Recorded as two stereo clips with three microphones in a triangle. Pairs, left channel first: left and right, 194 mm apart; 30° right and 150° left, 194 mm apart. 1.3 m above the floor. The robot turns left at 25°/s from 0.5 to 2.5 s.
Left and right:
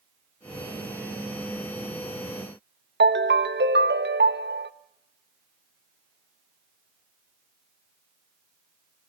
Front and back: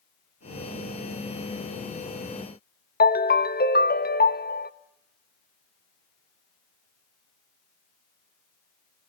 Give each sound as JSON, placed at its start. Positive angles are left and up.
{"t": 3.0, "sound": "a ringtone", "azimuth_deg": -65, "distance_m": 1.1}